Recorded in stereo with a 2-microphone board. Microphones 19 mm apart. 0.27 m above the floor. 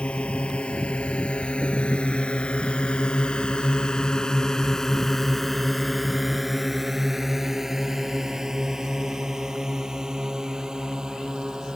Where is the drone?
80° left; by 11.8 s 40° right (ahead or behind).